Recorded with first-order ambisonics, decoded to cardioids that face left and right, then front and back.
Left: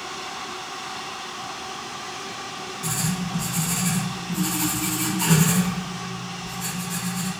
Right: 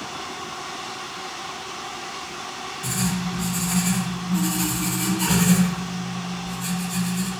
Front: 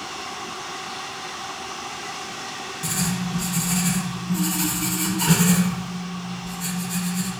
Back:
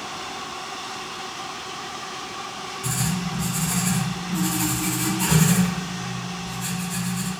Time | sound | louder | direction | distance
2.8 | writing | right 1 dB, front 1 dB | 10° left | 1.5 m